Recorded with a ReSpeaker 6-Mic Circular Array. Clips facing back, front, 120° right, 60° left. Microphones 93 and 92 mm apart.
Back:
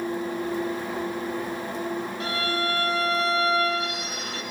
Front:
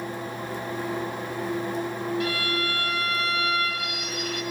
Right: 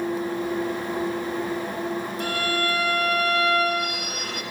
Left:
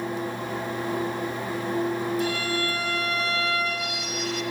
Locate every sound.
2.2 s a violin: 130° right, 1.0 m